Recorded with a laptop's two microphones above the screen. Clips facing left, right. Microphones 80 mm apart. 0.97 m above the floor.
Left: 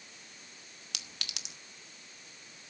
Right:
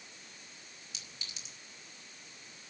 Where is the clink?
75° left (ahead or behind), 1.1 m.